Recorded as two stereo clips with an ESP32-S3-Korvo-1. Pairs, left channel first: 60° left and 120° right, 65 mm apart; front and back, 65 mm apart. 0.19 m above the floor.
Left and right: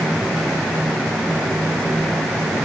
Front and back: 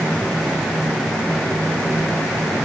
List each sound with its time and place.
Only background noise.